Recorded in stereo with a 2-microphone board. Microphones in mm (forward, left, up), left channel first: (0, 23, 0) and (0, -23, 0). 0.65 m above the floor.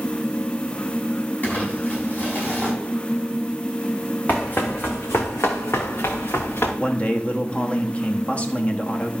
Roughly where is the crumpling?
Left.